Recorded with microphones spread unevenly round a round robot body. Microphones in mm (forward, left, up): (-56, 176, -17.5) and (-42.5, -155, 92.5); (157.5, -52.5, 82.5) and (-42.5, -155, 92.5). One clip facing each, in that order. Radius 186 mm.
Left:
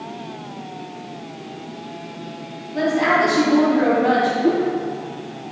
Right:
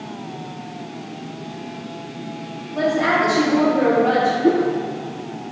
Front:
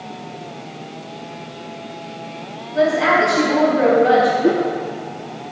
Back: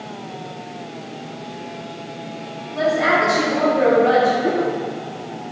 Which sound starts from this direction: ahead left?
A woman speaking, at 2.7 s.